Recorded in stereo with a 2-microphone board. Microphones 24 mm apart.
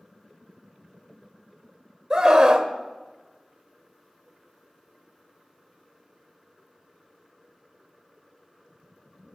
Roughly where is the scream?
Right.